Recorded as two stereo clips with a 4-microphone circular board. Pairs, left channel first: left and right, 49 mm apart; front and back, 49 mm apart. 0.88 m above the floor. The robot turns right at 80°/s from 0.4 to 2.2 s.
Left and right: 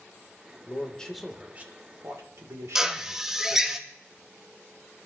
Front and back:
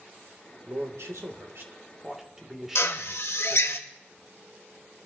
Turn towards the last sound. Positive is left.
turn(degrees=-10)